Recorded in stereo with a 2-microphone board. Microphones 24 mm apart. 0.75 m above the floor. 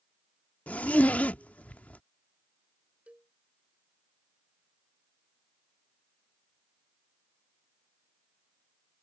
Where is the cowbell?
60° right (ahead or behind).